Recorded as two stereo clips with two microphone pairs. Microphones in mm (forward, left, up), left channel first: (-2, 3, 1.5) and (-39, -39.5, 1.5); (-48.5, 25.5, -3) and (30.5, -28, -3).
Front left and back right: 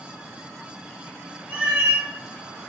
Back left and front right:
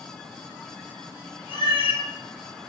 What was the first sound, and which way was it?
A cat meowing, 170° left.